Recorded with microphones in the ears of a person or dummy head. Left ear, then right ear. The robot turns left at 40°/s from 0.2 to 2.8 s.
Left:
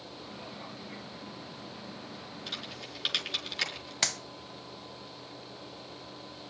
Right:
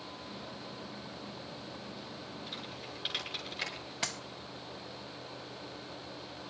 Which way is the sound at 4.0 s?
40° left (ahead or behind).